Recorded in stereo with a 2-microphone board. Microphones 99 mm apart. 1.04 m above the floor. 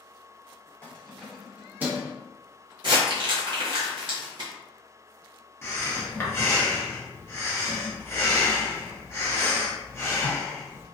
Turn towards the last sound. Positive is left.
turn(degrees=25)  # may be behind; listen again after turning